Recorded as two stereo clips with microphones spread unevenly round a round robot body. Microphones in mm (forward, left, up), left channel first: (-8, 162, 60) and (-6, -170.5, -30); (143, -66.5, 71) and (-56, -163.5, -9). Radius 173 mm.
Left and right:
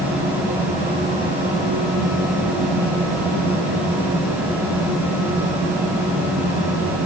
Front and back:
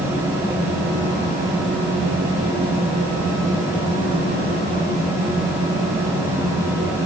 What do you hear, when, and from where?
Only background noise.